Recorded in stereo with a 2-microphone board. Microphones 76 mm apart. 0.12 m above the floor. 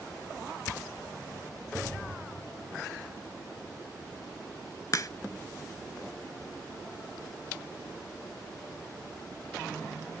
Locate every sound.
4.9 s a crack: 50° left (ahead or behind), 0.5 m